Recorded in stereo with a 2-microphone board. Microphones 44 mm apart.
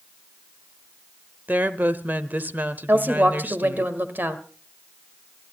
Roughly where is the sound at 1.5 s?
Right.